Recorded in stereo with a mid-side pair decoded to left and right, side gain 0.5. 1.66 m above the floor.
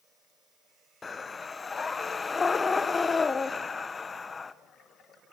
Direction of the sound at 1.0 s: 30° left.